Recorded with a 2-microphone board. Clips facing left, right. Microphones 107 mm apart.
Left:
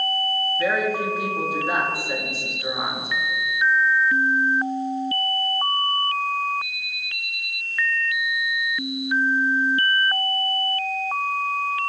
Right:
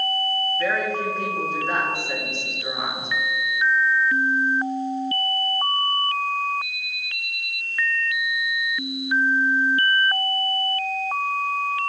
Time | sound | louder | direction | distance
0.6 | a woman speaking | left 3 dB | 10° left (ahead or behind) | 1.1 m